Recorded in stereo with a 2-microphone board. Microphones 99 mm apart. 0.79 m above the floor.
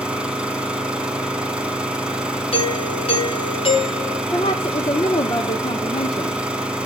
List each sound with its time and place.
0.0 s an engine running: 10° right (ahead or behind), 1.7 m
2.5 s a doorbell: 70° left (ahead or behind), 4.5 m
4.3 s a woman speaking: 65° left (ahead or behind), 1.3 m